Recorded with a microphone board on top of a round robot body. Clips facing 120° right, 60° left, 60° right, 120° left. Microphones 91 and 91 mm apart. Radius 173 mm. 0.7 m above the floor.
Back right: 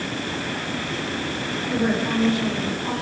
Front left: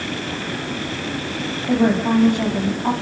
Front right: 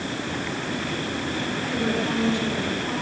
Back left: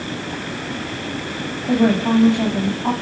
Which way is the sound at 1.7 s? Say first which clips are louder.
Front left 6 dB, back left 11 dB; 100° left.